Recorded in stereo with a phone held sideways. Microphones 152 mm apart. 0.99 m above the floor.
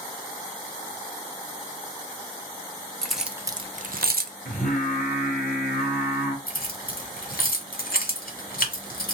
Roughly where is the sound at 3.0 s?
Centre.